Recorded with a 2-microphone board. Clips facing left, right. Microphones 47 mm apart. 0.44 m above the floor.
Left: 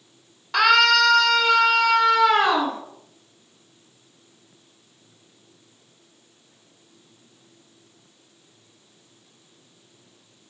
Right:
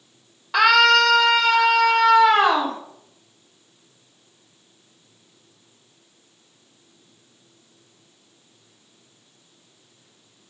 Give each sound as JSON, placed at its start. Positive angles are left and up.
{"t": 0.5, "sound": "a scream", "side_deg": -5, "distance_m": 1.2}